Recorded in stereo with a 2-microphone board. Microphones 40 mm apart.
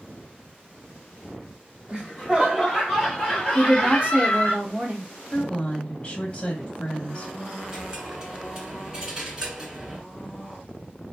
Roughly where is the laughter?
Right.